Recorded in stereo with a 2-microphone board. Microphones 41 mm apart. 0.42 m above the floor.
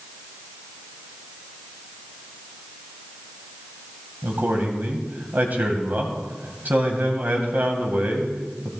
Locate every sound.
4.2 s a man speaking: 45° right (ahead or behind), 2.5 m